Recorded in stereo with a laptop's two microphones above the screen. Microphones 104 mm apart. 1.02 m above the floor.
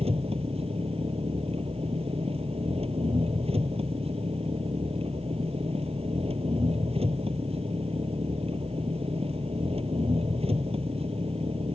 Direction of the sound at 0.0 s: 75° right (ahead or behind).